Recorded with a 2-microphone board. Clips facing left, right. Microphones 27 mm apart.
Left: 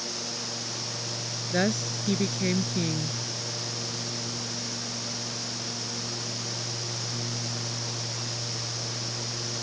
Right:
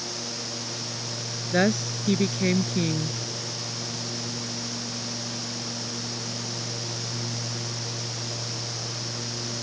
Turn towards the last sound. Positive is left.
turn(degrees=-20)  # may be behind; listen again after turning